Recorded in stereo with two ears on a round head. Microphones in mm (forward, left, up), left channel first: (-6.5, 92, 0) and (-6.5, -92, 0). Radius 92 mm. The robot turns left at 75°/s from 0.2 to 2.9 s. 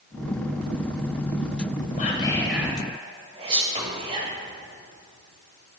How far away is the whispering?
About 2 m.